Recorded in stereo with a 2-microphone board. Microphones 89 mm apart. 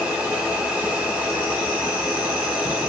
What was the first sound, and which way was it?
An insect, 15° right (ahead or behind).